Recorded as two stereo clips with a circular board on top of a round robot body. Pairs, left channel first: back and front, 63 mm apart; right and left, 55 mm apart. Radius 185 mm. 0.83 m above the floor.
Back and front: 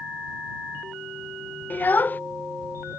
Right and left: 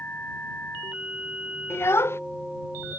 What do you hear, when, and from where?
1.7 s a child speaking: 120° right